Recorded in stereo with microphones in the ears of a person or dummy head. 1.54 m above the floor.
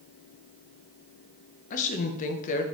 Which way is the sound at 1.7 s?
45° left (ahead or behind).